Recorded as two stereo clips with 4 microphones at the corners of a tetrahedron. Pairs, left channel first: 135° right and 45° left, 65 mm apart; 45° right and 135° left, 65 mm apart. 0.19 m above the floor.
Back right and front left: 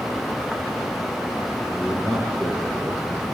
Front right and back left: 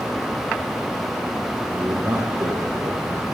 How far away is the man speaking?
About 4.5 m.